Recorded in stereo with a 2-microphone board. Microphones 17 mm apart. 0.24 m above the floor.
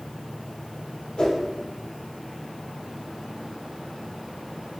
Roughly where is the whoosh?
Left.